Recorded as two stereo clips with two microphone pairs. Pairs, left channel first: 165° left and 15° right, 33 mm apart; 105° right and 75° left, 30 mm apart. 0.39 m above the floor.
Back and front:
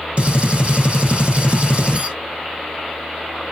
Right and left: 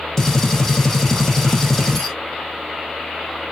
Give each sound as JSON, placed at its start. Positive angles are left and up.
{"t": 0.2, "sound": "a gunshot", "azimuth_deg": -30, "distance_m": 0.7}